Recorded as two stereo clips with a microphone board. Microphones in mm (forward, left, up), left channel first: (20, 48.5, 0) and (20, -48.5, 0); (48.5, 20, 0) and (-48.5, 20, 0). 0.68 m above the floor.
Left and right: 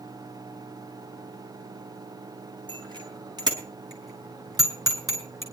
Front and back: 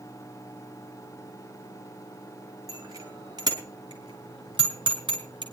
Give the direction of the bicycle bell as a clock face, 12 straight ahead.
4 o'clock.